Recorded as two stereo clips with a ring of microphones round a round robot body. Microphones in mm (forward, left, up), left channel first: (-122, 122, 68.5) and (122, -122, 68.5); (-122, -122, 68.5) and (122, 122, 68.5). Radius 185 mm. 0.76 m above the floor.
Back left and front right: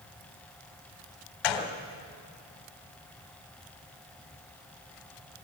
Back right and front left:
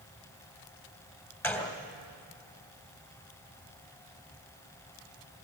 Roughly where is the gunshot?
Behind left.